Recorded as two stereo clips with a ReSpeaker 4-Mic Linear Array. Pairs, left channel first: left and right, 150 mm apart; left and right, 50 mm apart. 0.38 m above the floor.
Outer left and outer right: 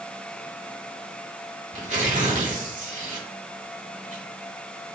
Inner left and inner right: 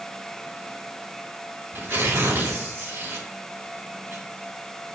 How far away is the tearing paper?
About 0.9 m.